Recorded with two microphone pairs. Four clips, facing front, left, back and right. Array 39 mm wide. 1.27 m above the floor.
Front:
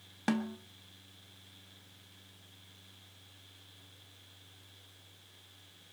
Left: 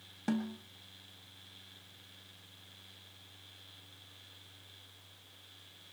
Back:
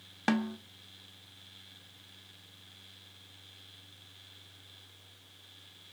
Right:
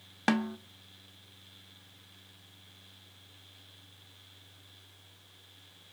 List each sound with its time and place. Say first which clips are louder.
0.3 s a snare drum: right 6 dB, back 3 dB; 105° right, 0.9 m